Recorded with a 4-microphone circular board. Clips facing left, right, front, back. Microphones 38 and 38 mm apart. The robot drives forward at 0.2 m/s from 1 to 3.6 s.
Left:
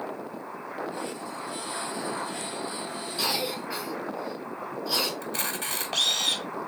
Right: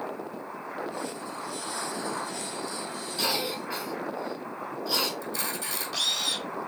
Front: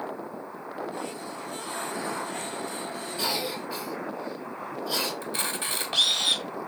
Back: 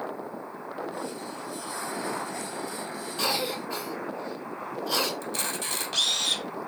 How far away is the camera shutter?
About 1.3 m.